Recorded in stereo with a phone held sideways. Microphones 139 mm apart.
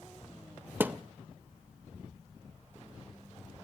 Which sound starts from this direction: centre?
A thud, at 0.8 s.